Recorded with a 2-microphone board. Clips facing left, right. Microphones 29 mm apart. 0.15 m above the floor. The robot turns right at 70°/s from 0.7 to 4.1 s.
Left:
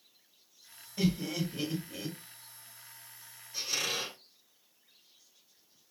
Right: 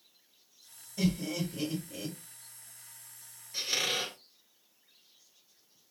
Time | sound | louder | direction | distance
1.0 | laughter | even | 35° left (ahead or behind) | 2 m
3.5 | a squeak | right 2 dB | 140° right | 1.1 m